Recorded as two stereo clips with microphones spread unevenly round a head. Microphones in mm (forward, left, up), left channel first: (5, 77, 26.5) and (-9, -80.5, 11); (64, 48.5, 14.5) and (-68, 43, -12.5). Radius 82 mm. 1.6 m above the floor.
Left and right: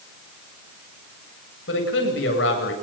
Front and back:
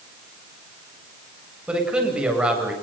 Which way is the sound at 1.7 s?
100° left.